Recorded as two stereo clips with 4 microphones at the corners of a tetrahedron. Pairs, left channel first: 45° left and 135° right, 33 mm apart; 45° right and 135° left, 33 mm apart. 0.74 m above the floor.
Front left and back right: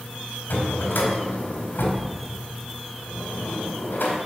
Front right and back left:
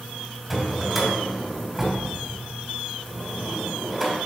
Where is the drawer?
50° left, 2 m.